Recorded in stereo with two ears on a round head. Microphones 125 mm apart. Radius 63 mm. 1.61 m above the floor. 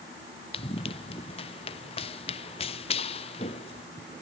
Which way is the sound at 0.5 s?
40° left (ahead or behind).